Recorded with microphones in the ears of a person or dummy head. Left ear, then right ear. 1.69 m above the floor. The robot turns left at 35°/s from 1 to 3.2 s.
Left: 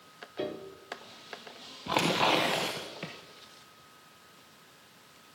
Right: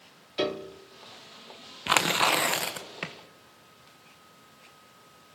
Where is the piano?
45° right (ahead or behind), 0.6 m.